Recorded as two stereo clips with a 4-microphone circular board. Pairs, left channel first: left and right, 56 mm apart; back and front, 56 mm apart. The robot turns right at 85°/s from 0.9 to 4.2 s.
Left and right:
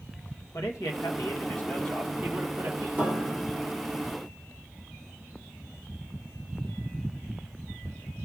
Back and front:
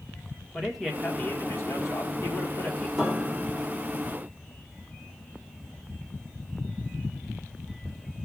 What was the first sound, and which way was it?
A man speaking, 90° left.